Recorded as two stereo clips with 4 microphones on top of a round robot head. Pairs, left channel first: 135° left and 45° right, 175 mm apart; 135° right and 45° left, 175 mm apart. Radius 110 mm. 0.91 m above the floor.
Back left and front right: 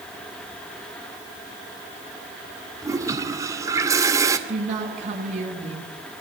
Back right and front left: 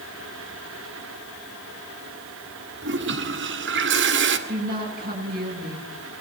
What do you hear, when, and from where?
2.8 s a toilet flushing: 30° left, 2 m
4.5 s a woman speaking: 5° left, 9 m